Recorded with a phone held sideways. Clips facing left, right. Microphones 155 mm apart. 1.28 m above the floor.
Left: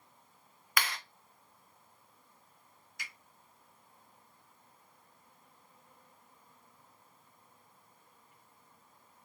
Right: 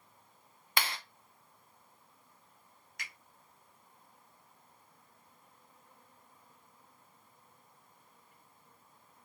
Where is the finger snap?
70° right (ahead or behind), 2.0 m.